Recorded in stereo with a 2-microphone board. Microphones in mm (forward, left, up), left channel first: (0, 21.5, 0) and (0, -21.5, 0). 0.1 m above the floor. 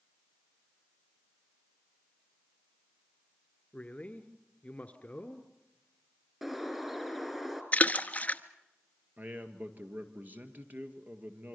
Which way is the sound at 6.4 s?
5° right (ahead or behind).